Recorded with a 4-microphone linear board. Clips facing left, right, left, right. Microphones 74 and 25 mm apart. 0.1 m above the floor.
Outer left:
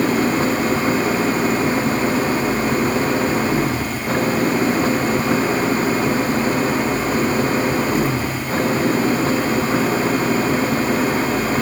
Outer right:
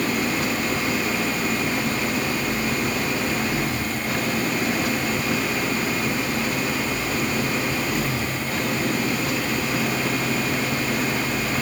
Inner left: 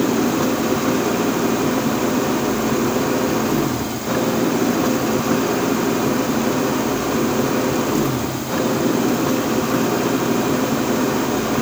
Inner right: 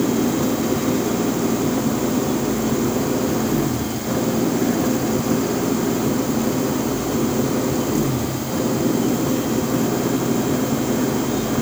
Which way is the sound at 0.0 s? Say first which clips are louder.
Outer left 6 dB, inner left 1 dB; 35° left (ahead or behind).